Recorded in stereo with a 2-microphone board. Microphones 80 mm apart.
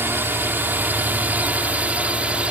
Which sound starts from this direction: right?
A drone, at 0.0 s.